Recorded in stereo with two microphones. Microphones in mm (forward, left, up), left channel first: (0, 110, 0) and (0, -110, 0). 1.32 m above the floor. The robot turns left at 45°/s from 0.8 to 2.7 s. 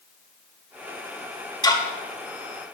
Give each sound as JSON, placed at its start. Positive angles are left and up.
{"t": 1.6, "sound": "ticking", "side_deg": 20, "distance_m": 1.8}